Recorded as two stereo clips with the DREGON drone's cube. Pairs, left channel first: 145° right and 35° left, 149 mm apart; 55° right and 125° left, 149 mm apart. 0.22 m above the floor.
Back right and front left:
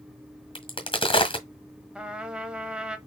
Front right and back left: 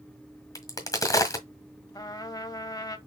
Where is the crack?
110° right, 1.6 m.